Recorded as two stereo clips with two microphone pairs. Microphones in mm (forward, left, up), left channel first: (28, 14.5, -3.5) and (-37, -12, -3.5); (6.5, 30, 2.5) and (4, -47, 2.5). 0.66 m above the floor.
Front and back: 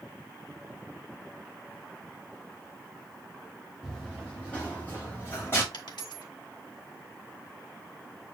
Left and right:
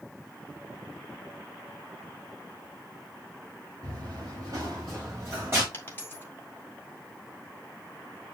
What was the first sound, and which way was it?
Running footsteps, 60° right.